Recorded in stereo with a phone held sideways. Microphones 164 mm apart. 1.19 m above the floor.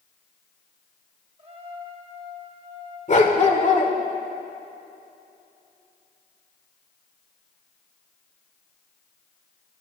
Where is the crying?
I don't hear crying.